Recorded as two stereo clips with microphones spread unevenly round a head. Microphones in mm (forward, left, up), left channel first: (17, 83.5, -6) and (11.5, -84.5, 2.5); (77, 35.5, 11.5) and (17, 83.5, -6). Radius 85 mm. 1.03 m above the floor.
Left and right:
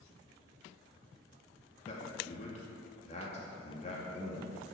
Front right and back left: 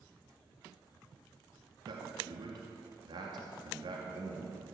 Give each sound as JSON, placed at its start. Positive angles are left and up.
{"t": 1.9, "sound": "a man speaking", "azimuth_deg": 140, "distance_m": 2.0}